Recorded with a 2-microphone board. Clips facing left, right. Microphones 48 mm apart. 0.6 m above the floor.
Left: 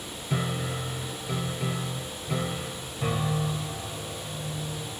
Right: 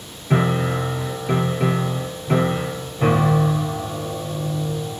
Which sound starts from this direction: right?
A piano, at 0.3 s.